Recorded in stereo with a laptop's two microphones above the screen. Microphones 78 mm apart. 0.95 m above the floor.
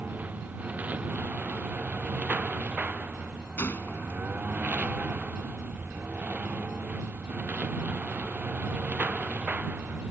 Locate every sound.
0.0 s a lawn mower: 20° right (ahead or behind)
3.6 s a gunshot: 25° left (ahead or behind)